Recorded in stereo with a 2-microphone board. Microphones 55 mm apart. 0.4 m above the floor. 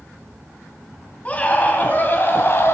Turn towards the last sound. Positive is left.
turn(degrees=50)  # may be behind; listen again after turning